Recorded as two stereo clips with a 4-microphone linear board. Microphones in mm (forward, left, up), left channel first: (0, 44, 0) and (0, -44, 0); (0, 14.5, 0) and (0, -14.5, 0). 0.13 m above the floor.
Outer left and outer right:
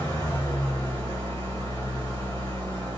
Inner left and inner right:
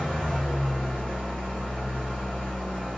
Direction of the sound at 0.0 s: 35° left (ahead or behind).